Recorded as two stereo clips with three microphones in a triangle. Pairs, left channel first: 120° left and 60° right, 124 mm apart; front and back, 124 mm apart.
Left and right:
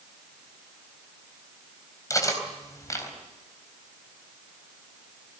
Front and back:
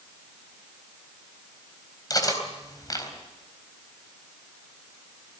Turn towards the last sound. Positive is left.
turn(degrees=60)